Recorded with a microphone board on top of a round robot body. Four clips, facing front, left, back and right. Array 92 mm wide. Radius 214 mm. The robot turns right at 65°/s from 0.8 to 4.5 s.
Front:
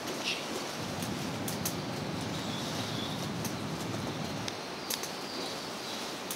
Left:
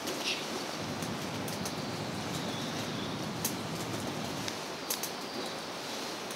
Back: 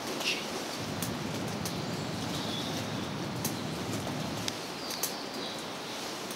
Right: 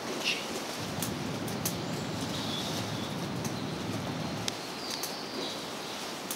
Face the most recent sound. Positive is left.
turn(degrees=110)